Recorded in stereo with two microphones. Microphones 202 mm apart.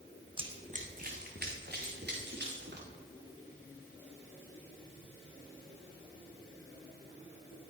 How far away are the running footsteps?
About 1.0 m.